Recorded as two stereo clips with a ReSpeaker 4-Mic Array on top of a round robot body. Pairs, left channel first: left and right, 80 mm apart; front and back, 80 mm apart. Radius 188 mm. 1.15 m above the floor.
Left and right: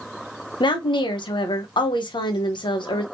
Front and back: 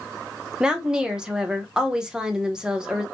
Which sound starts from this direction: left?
A woman speaking, at 0.6 s.